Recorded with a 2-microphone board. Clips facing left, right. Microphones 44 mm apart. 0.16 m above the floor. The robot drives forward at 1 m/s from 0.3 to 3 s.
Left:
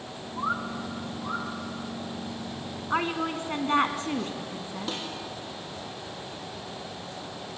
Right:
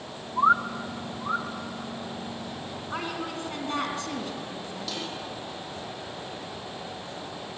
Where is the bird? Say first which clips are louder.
Right 8 dB; 40° right (ahead or behind), 0.8 m; by 1.5 s 20° right (ahead or behind), 1.5 m.